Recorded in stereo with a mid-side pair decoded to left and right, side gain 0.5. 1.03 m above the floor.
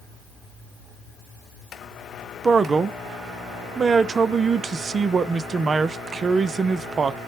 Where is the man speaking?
40° right, 0.5 m.